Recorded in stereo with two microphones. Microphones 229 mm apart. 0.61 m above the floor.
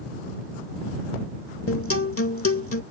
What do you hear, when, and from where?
1.7 s a guitar: 75° left (ahead or behind)